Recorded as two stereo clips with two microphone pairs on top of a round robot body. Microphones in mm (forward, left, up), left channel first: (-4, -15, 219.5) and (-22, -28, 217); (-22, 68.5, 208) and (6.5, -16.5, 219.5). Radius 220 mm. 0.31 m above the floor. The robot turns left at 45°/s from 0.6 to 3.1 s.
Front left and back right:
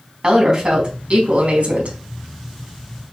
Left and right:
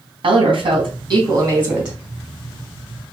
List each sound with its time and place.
0.2 s a woman speaking: 95° right, 2.5 m; by 2.0 s 155° right, 2.5 m